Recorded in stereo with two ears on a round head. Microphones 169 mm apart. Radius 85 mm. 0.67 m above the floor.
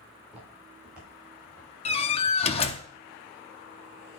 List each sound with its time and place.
0.2 s footsteps: 5° right (ahead or behind), 6 m; by 1.7 s 10° right (ahead or behind), 6.5 m
1.9 s a door slam: 30° left (ahead or behind), 0.6 m